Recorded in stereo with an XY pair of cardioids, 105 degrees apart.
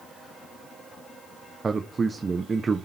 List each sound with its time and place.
1.6 s a man speaking: 30° right, 1.1 m